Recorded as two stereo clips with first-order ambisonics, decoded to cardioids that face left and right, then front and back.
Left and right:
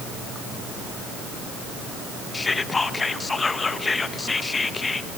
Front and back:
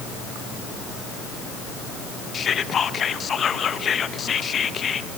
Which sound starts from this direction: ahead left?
Whispering, at 2.3 s.